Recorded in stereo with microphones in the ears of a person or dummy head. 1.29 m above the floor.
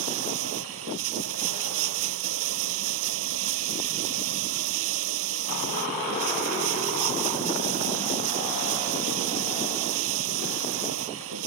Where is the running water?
85° right.